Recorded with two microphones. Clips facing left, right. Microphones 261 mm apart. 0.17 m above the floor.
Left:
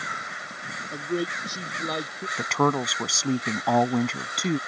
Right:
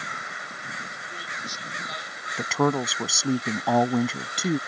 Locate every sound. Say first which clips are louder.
0.9 s a man speaking: left 17 dB; 65° left (ahead or behind); by 2.3 s 70° left (ahead or behind)
2.4 s a woman speaking: right 1 dB; 5° right (ahead or behind)